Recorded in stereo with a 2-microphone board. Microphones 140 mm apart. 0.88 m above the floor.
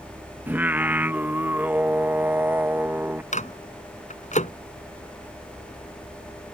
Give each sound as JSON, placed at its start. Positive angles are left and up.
{"t": 0.5, "sound": "singing", "side_deg": -15}
{"t": 3.3, "sound": "a microwave", "side_deg": 60}